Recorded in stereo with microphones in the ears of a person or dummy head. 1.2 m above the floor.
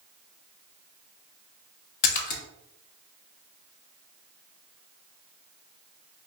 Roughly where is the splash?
Left.